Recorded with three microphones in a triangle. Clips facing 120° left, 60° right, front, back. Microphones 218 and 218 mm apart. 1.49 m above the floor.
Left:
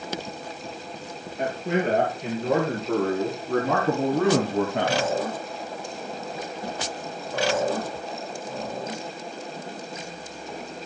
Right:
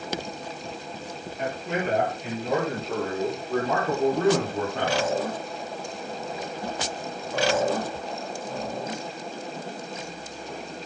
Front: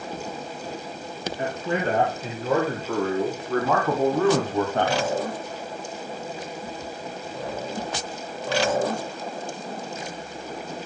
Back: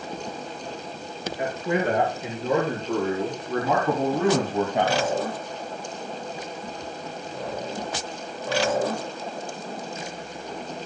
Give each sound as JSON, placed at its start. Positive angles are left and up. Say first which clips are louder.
{"t": 1.4, "sound": "a man speaking", "louder": "left 4 dB, back 2 dB", "azimuth_deg": 105, "distance_m": 6.0}